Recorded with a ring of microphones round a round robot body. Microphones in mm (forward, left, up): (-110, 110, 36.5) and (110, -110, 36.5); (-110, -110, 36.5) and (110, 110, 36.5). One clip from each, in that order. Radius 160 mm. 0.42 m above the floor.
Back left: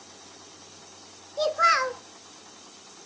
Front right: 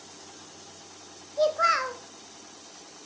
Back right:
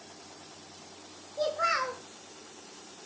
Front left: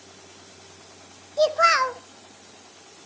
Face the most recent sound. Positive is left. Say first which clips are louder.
# back left 1 dB, front left 10 dB
turn(degrees=65)